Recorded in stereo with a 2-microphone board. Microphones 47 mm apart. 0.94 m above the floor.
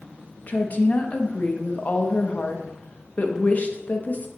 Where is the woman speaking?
40° left (ahead or behind), 1.0 m.